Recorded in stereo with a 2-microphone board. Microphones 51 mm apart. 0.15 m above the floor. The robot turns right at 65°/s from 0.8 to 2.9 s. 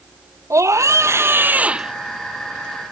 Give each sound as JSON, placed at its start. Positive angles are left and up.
{"t": 0.5, "sound": "a scream", "azimuth_deg": -85}